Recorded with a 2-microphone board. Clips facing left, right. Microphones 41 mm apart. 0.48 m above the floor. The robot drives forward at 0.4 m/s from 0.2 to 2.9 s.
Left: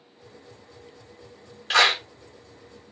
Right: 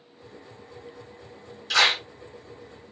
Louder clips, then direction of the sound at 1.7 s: Left 2 dB; 40° left (ahead or behind).